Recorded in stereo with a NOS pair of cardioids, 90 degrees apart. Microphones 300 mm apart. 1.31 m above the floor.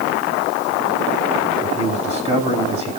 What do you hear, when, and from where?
1.6 s a man speaking: 20° right, 7.5 m